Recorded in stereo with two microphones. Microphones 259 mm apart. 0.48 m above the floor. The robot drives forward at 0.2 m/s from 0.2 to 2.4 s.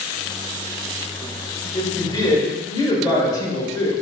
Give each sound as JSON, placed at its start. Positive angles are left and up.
{"t": 1.7, "sound": "a woman speaking", "side_deg": 15, "distance_m": 1.0}